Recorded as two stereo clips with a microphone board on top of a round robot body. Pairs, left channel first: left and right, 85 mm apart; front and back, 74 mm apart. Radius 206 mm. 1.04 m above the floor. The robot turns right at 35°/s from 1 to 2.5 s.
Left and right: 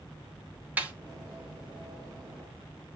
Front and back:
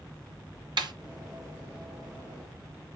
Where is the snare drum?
165° right, 2.5 m.